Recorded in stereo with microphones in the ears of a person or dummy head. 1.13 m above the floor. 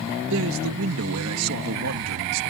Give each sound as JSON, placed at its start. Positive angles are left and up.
{"t": 0.3, "sound": "a man speaking", "side_deg": -70}